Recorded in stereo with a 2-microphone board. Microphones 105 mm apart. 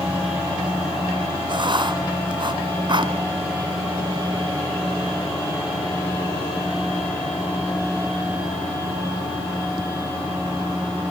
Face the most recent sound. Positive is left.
turn(degrees=-45)  # may be behind; listen again after turning